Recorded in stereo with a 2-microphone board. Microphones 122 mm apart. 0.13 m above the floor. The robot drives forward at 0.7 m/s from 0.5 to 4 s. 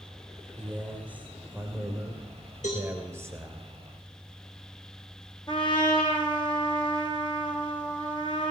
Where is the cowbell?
75° left (ahead or behind), 4.5 m; by 2.9 s 70° left (ahead or behind), 4.5 m.